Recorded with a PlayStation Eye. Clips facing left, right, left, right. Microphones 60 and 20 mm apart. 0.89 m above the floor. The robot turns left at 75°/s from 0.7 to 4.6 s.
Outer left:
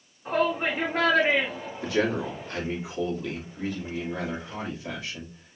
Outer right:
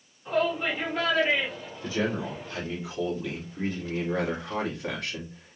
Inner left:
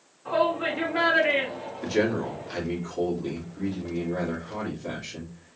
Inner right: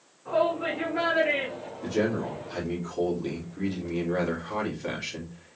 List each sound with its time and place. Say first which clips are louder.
0.2 s a shout: outer left 1 dB, inner left 1 dB; 35° left (ahead or behind), 1.5 m; by 2.6 s 5° left (ahead or behind), 1.5 m
1.8 s a man speaking: outer left 3 dB, inner left 2 dB; 95° left, 2.5 m; by 5.6 s 115° right, 2.5 m